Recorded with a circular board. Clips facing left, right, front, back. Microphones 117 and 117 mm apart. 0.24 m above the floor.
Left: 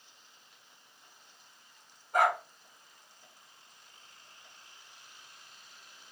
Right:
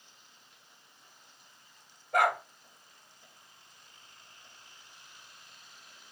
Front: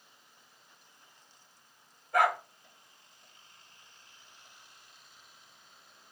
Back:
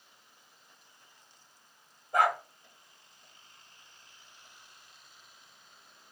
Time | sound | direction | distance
2.1 | a dog barking | 110° right | 1.7 m